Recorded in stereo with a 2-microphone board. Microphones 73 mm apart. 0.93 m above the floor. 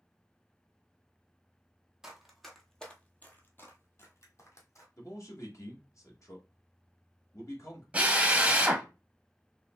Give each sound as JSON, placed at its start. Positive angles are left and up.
{"t": 2.0, "sound": "running footsteps", "side_deg": -5, "distance_m": 1.2}
{"t": 5.0, "sound": "a man speaking", "side_deg": 50, "distance_m": 1.3}
{"t": 7.9, "sound": "a drill", "side_deg": -20, "distance_m": 0.8}